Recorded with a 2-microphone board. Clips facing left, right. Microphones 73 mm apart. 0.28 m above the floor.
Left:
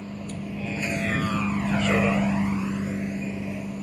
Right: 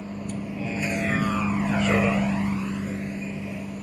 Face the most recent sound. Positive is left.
turn(degrees=5)  # may be behind; listen again after turning